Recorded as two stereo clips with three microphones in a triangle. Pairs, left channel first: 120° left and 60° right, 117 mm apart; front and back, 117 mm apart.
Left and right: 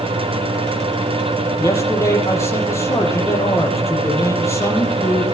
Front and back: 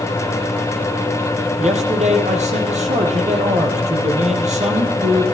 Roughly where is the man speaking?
Behind.